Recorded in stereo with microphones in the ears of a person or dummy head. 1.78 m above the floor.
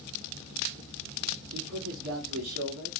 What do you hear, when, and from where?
1.5 s a man speaking: 75° right (ahead or behind), 1.6 m